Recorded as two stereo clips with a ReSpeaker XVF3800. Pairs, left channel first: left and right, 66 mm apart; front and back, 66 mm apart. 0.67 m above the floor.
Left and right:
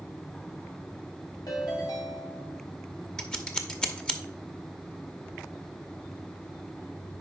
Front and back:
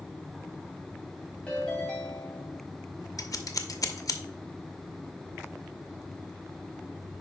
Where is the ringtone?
75° left, 3 m.